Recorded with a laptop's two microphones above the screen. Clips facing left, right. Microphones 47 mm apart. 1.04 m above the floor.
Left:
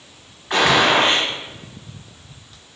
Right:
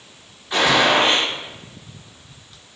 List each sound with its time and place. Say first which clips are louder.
0.5 s a gunshot: left 1 dB; 55° left (ahead or behind), 1.1 m